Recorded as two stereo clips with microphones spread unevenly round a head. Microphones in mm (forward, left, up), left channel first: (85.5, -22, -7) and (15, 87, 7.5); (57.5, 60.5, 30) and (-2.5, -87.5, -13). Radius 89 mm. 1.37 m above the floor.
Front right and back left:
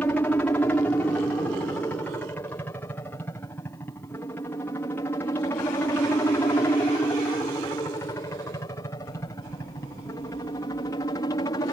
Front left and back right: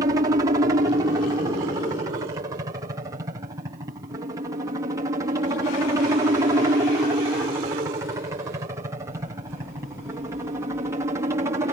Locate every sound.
0.0 s a helicopter: 120° right; by 11.7 s 85° right